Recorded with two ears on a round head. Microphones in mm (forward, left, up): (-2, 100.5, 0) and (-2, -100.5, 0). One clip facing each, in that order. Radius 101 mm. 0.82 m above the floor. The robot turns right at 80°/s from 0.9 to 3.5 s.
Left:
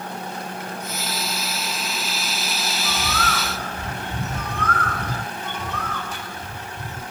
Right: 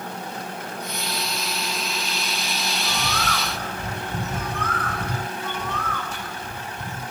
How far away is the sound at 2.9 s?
About 1.9 m.